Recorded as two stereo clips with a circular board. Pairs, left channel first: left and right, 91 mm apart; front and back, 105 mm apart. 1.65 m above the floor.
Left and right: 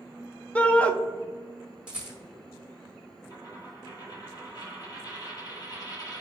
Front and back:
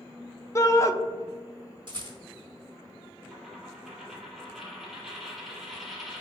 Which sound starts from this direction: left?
A dropped coin, at 3.3 s.